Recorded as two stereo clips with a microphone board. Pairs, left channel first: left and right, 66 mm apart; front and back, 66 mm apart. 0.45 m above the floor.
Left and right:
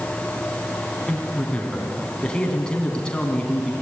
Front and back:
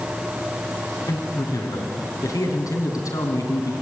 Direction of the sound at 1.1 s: 15° left.